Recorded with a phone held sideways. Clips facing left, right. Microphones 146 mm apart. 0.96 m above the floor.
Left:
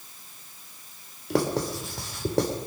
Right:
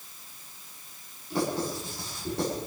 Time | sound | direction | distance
1.3 | writing | 85° left | 2.5 m